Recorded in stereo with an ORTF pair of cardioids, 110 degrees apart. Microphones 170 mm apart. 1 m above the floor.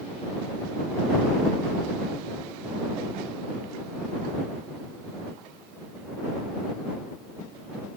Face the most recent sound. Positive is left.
No sound to turn to.